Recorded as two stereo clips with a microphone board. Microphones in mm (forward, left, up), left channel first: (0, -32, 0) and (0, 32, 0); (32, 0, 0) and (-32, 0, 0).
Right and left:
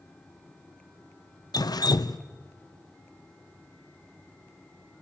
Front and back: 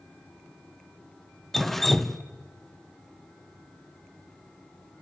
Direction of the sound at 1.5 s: 85° right.